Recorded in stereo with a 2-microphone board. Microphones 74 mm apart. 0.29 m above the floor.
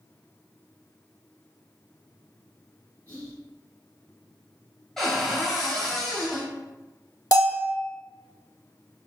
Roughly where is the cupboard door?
Centre.